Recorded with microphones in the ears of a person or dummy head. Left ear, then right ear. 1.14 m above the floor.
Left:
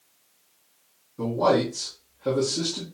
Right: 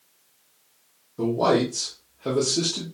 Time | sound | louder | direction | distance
1.2 | a man speaking | right 1 dB | 35° right (ahead or behind) | 1.2 m